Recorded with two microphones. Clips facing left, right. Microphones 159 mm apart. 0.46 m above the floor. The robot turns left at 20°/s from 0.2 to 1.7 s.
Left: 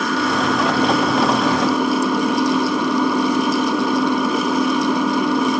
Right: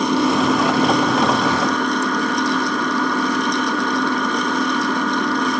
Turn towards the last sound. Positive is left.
turn(degrees=165)